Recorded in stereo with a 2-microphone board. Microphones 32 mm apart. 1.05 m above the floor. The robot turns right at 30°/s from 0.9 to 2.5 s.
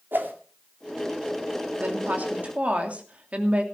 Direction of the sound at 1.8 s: 60° right (ahead or behind).